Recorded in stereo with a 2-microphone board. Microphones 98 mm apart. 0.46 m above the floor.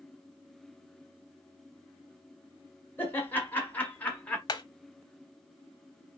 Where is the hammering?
45° left (ahead or behind), 0.9 m.